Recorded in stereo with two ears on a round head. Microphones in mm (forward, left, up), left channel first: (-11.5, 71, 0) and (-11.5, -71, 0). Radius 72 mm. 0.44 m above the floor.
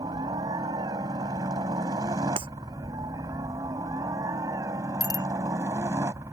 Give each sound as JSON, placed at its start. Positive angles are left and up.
{"t": 0.0, "sound": "a helicopter", "side_deg": -25}
{"t": 2.4, "sound": "breaking glass", "side_deg": -35}
{"t": 5.0, "sound": "a bicycle bell", "side_deg": 25}